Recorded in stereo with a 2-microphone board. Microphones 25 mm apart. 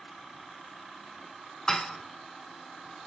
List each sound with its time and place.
1.7 s dishes clattering: 25° left (ahead or behind), 1.1 m